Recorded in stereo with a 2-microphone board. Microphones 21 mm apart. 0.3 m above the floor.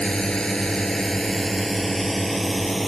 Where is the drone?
45° left (ahead or behind); by 2.9 s 5° right (ahead or behind).